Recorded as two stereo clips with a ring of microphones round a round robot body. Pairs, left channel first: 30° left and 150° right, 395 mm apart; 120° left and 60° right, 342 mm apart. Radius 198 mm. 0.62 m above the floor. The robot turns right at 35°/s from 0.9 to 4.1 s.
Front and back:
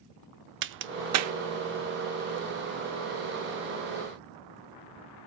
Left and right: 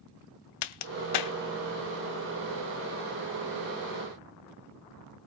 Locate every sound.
0.6 s a crack: 150° left, 0.6 m; by 1.3 s 165° left, 0.6 m